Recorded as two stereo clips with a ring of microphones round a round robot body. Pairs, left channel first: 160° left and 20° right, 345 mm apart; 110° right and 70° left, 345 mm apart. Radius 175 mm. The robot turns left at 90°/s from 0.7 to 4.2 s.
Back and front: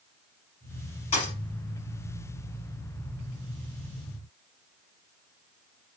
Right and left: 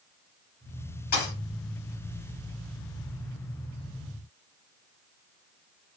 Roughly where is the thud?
Behind right.